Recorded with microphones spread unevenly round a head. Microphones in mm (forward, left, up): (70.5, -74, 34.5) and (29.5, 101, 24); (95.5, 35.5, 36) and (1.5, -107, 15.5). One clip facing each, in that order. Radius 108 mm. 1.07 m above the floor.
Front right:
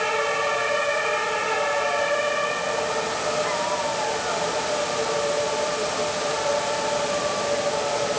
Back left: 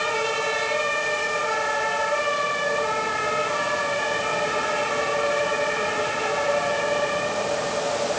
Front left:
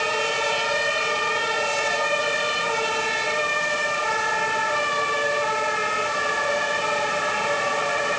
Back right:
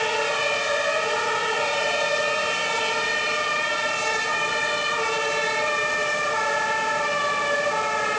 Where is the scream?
I don't hear a scream.